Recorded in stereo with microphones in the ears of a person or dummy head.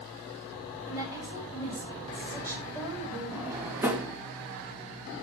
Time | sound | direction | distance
0.9 | a woman speaking | 20° right (ahead or behind) | 6 m
3.3 | a drawer | 10° right (ahead or behind) | 1.6 m